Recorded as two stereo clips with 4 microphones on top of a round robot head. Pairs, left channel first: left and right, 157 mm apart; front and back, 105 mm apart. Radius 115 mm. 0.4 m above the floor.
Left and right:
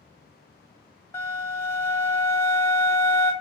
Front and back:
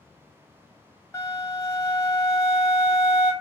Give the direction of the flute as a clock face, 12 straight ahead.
11 o'clock.